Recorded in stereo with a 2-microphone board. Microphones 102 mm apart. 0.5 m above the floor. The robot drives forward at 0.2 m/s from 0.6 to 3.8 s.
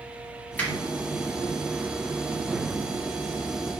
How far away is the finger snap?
About 0.7 m.